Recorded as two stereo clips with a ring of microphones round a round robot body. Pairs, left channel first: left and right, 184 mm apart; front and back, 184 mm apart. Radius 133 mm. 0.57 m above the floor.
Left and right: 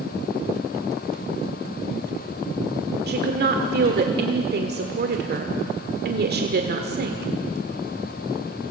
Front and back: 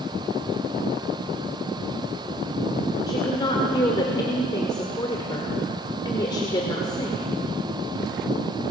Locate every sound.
3.1 s a woman speaking: 70° right, 1.5 m